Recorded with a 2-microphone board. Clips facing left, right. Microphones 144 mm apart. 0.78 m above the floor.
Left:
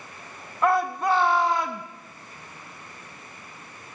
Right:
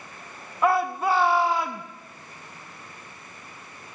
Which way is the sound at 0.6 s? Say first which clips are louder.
Even; 5° right (ahead or behind).